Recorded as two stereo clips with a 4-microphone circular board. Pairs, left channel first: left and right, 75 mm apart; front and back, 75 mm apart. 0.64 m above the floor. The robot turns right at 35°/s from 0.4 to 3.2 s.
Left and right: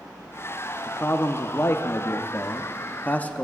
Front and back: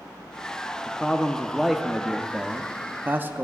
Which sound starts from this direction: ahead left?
A man speaking, at 0.9 s.